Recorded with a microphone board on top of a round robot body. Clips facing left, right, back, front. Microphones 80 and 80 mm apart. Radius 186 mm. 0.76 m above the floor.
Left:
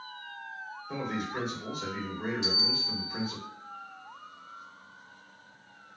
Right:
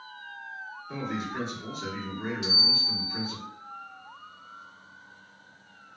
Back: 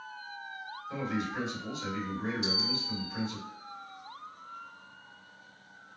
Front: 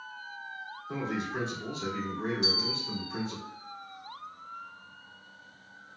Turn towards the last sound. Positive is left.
turn(degrees=25)